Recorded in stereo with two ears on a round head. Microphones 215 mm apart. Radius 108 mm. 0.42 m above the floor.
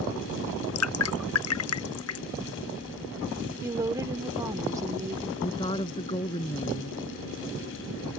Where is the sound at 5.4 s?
20° left (ahead or behind).